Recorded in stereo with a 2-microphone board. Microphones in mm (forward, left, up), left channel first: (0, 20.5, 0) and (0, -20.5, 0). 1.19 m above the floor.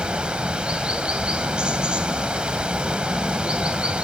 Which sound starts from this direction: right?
Running water, at 0.0 s.